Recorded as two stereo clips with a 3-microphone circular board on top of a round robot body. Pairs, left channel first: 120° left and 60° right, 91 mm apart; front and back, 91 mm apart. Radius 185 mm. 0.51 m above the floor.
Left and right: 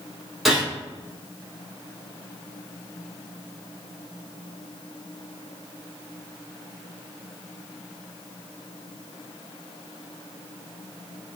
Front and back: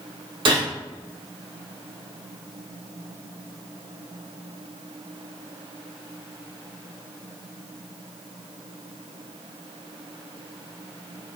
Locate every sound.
0.5 s a gunshot: 150° right, 0.9 m